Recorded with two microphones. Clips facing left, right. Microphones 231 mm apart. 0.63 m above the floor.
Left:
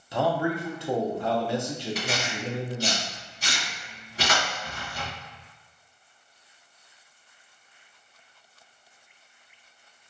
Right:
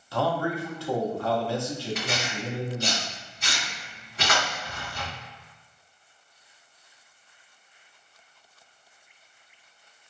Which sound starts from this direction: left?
Tearing paper, at 1.9 s.